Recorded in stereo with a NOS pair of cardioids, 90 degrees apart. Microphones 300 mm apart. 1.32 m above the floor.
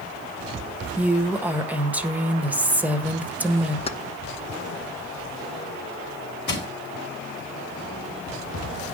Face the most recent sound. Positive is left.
turn(degrees=35)